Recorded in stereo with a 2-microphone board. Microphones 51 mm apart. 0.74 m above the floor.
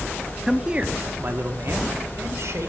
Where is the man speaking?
10° right (ahead or behind), 1.2 m; by 2.7 s 70° right (ahead or behind), 3 m.